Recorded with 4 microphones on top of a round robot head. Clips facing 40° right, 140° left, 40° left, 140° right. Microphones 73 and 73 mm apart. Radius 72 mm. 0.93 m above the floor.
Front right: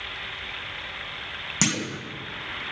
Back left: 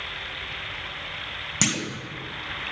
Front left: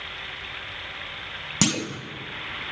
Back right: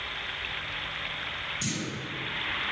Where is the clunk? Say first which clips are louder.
Front right 1 dB, front left 11 dB; 50° left, 1.0 m.